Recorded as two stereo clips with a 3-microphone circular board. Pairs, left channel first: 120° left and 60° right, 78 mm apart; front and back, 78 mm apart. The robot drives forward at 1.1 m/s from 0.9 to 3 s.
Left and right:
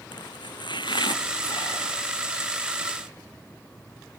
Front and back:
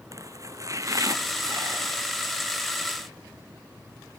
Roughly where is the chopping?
Behind left.